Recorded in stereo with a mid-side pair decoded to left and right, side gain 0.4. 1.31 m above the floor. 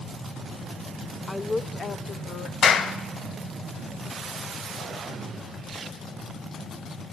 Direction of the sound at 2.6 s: 65° left.